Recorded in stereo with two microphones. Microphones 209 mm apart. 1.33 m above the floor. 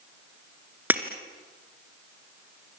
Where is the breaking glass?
10° right (ahead or behind), 2 m.